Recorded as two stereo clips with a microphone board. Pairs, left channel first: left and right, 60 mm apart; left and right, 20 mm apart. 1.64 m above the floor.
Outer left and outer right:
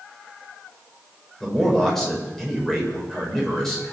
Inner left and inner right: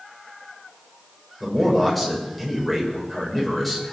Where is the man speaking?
5° left (ahead or behind), 7 m.